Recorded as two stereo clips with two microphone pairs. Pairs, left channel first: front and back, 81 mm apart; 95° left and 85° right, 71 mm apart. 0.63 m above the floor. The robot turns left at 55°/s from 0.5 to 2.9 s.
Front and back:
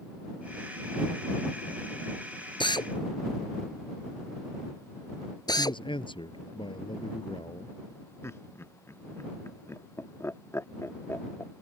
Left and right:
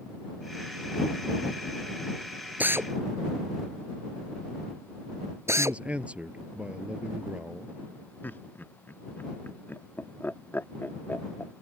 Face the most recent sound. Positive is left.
turn(degrees=45)